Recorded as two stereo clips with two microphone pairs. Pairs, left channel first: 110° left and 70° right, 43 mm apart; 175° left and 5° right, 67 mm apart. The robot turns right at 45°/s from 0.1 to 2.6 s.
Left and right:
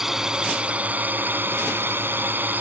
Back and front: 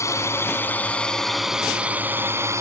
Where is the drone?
155° right; by 2.6 s 40° right.